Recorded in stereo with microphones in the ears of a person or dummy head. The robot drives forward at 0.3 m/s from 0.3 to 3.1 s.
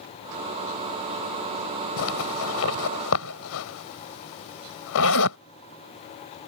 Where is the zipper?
75° left (ahead or behind).